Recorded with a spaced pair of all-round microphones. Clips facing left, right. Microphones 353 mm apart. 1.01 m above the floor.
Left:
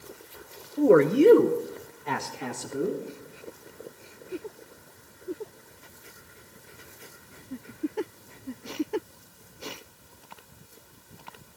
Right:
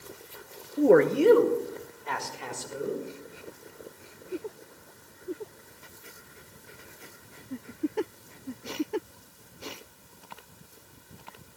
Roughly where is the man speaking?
Centre.